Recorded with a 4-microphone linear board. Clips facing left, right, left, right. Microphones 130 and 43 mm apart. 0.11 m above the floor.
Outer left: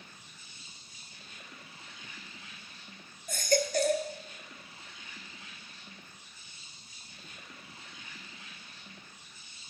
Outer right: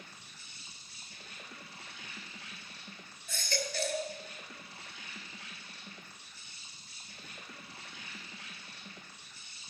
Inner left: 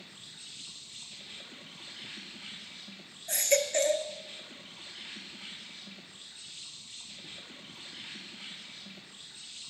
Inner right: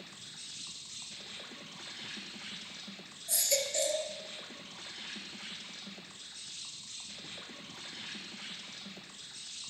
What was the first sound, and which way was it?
An insect, 75° right (ahead or behind).